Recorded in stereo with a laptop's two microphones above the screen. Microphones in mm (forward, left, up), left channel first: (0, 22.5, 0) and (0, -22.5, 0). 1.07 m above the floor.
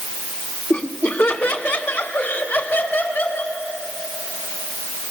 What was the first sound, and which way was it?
Laughter, 50° left (ahead or behind).